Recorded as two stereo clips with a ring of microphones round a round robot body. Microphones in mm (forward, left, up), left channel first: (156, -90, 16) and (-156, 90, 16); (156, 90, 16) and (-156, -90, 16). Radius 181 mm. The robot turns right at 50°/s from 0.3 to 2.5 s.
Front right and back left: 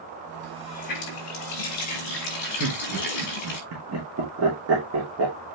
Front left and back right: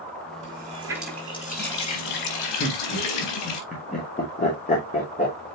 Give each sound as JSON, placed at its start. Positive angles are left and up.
{"t": 0.4, "sound": "a running tap", "azimuth_deg": -90, "distance_m": 4.5}
{"t": 2.6, "sound": "laughter", "azimuth_deg": 100, "distance_m": 2.5}